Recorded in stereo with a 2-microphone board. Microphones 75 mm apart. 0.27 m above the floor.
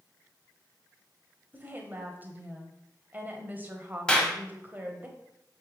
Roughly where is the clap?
Centre.